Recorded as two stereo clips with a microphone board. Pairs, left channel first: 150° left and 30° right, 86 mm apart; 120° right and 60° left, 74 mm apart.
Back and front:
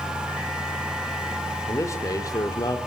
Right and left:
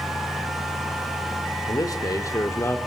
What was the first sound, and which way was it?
A man speaking, 155° right.